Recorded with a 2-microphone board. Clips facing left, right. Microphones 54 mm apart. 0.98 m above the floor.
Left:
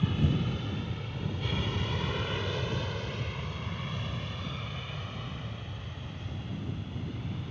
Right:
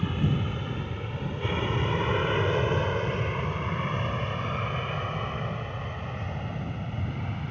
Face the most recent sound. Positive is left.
turn(degrees=-50)  # may be behind; listen again after turning